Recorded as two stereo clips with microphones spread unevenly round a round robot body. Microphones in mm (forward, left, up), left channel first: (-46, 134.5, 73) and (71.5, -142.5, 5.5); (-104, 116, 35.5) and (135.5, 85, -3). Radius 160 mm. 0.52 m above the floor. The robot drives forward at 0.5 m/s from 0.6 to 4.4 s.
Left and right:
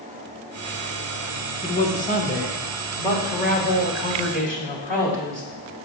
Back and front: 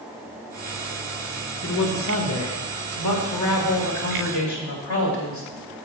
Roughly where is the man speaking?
Behind.